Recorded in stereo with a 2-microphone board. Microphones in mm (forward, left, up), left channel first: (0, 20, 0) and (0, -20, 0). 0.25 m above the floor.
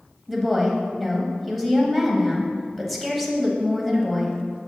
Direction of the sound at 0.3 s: Centre (ahead or behind).